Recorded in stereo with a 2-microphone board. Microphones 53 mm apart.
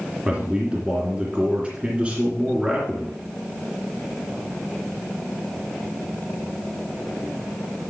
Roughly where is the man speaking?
Right.